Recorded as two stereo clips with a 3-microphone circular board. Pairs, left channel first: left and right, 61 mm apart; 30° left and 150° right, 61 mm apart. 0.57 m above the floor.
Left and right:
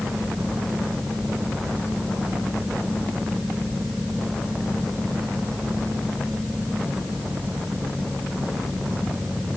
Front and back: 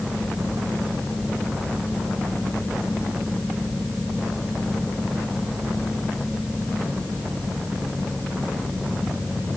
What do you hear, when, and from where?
Only background noise.